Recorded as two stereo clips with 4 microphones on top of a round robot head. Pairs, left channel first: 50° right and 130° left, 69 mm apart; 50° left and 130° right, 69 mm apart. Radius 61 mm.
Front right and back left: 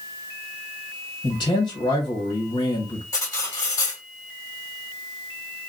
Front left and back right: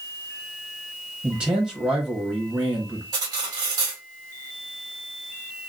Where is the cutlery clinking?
100° right, 1.5 m.